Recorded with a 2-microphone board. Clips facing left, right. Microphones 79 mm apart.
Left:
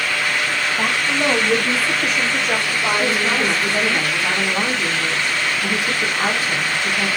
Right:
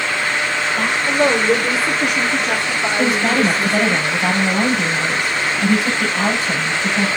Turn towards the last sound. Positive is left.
turn(degrees=-75)  # may be behind; listen again after turning